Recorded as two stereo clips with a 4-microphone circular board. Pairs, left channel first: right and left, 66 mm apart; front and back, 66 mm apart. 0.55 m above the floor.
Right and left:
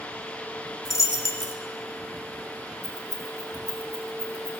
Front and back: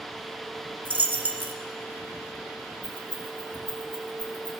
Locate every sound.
0.8 s a dropped coin: 120° right, 1.0 m
2.8 s keys jangling: 75° right, 3.5 m